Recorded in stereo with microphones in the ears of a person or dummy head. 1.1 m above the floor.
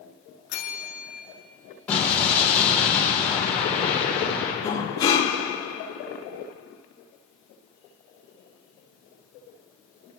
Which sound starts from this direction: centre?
An explosion, at 1.9 s.